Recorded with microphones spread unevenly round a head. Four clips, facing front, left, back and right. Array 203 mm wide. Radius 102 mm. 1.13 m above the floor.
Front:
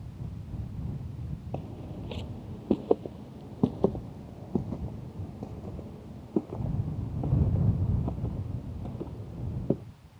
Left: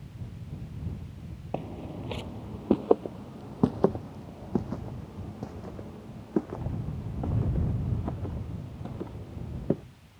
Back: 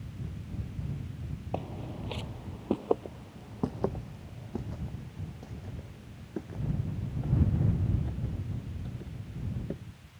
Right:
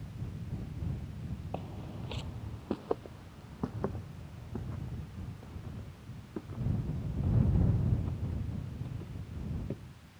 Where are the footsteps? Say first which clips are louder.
Left 9 dB, back 3 dB; 85° left; by 9.8 s 50° left.